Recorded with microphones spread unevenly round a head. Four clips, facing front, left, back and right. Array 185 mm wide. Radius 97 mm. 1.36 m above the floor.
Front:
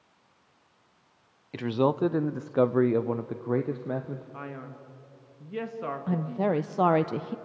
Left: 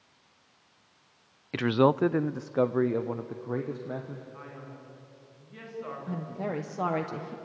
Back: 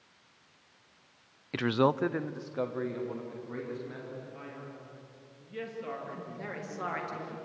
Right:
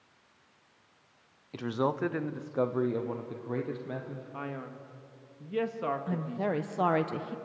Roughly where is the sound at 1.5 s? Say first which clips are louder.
Left 7 dB, front 1 dB; behind left.